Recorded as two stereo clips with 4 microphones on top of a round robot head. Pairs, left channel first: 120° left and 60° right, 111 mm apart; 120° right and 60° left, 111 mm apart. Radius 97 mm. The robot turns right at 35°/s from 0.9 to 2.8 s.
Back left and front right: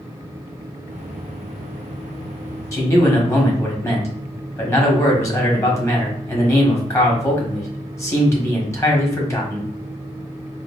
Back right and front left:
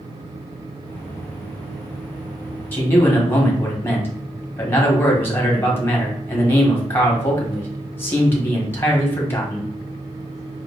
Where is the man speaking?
175° left, 1.6 m.